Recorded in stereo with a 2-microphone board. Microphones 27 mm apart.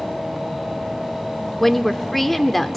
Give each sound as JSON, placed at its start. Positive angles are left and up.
{"t": 1.6, "sound": "a woman speaking", "side_deg": 10, "distance_m": 0.7}